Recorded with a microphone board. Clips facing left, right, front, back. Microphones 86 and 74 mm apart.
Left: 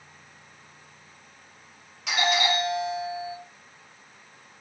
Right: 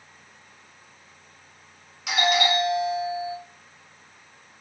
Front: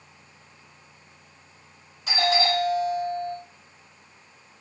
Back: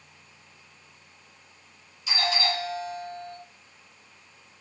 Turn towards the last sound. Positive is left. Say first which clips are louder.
# right 2 dB, front 5 dB
turn(degrees=-5)